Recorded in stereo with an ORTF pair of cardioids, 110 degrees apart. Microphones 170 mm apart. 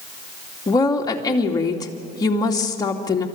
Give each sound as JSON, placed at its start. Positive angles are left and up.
{"t": 0.7, "sound": "a woman speaking", "azimuth_deg": 20, "distance_m": 2.5}